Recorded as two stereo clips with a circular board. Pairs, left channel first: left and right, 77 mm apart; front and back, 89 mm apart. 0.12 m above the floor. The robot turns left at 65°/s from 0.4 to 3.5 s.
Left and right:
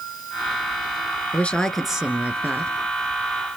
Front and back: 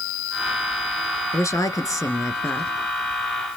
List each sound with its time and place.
1.3 s a woman speaking: 30° left, 1.7 m; by 2.7 s 60° right, 1.7 m